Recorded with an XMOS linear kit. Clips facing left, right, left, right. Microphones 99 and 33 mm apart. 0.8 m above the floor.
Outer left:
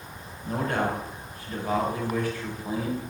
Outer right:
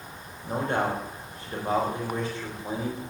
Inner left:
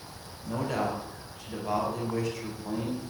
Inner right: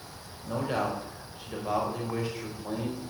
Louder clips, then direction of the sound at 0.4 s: Even, even; 25° right (ahead or behind).